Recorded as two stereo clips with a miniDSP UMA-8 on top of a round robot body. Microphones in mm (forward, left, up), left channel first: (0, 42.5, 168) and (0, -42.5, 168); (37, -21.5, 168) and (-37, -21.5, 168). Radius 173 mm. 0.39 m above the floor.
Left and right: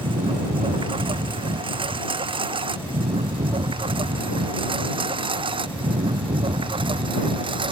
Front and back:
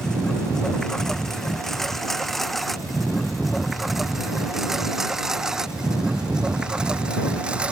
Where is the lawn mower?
80° right; by 7.7 s 105° right.